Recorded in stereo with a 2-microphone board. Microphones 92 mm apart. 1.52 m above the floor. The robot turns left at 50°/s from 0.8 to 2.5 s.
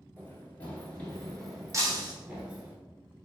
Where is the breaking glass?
35° right (ahead or behind), 1.0 m; by 2.1 s 45° right (ahead or behind), 1.0 m.